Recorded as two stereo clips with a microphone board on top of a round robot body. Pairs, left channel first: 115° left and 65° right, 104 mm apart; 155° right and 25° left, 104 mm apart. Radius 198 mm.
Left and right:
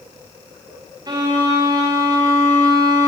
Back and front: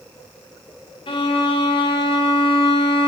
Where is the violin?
120° right, 3.5 m.